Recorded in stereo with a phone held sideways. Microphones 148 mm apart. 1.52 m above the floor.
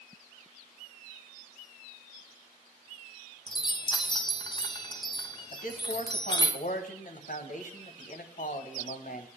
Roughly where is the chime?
Left.